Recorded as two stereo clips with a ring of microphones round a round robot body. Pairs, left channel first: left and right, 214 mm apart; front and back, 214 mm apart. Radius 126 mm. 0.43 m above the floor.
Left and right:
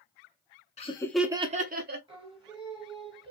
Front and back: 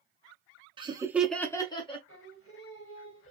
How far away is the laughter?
About 0.9 m.